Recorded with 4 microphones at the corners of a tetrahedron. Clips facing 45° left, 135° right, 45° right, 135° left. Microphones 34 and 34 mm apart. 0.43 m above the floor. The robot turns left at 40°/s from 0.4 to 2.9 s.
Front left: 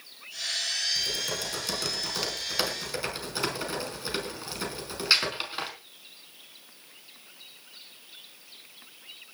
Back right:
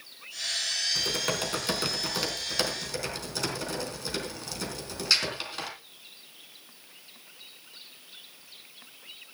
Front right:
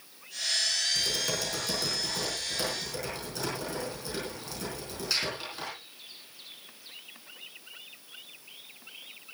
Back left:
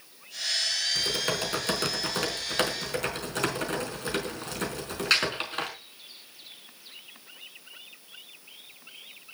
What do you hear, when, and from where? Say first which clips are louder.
0.9 s typing on a keyboard: back right 2 dB, back left 2 dB; 170° right, 4 m; by 5.7 s 115° left, 4 m